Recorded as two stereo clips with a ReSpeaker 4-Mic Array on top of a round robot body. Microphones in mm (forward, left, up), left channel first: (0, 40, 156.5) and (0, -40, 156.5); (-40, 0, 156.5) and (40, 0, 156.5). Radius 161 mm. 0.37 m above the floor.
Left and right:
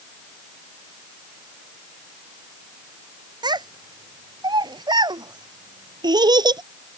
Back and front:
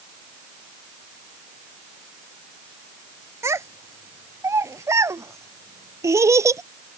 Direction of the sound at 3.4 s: 55° right.